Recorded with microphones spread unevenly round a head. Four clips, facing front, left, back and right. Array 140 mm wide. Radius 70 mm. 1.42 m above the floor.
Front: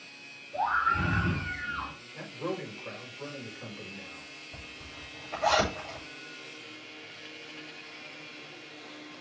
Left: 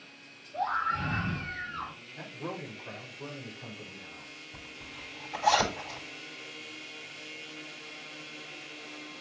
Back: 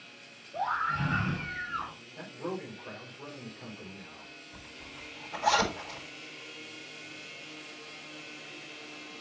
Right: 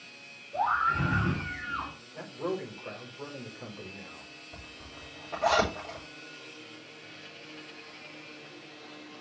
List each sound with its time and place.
0.5 s a scream: 70° right, 5.5 m; by 1.9 s 80° right, 6 m
2.1 s a man speaking: 85° right, 5 m
4.5 s a zipper: 80° right, 6 m